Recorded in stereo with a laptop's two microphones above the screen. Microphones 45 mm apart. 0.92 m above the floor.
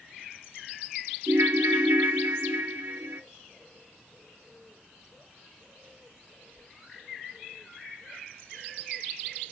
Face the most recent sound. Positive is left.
turn(degrees=-80)